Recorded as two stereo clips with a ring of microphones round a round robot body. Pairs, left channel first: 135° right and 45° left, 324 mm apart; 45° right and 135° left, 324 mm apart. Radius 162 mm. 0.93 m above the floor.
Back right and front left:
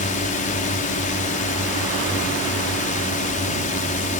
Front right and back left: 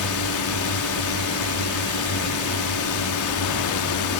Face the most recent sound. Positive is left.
turn(degrees=-70)